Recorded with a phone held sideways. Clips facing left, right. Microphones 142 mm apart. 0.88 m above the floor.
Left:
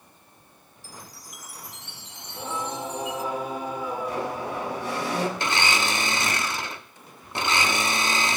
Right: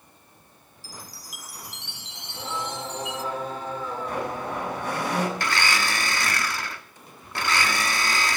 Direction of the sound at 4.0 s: 50° right (ahead or behind).